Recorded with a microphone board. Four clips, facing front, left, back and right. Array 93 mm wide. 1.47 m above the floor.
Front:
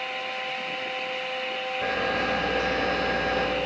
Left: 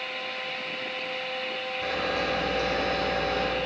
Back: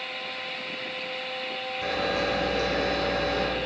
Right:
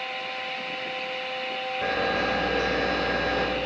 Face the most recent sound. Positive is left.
turn(degrees=-50)